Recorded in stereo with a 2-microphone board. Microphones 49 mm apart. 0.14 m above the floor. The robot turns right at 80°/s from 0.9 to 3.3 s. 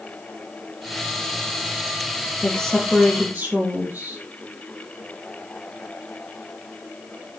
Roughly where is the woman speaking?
Behind left.